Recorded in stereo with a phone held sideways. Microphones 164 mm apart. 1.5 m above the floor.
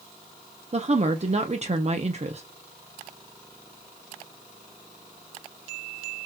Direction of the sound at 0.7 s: 40° right (ahead or behind).